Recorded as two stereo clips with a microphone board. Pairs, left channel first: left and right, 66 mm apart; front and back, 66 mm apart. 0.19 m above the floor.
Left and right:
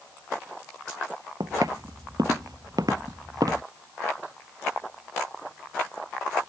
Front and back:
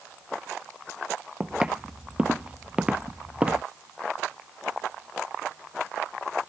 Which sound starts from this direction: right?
Footsteps, at 1.4 s.